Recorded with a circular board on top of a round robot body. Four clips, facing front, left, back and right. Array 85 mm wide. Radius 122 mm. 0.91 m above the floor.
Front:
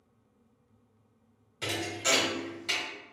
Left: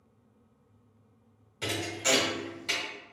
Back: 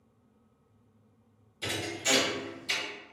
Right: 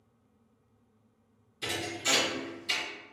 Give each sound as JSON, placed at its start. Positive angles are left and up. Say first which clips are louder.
{"t": 1.6, "sound": "a thud", "louder": "left 3 dB, front 1 dB", "azimuth_deg": 50, "distance_m": 1.3}